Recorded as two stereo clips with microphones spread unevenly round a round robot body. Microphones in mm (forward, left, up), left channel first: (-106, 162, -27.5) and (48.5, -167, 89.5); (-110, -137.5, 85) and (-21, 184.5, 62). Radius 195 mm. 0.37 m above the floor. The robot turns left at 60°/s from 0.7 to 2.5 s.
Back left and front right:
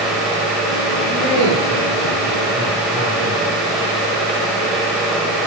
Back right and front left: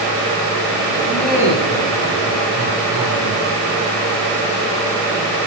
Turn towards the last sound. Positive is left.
turn(degrees=90)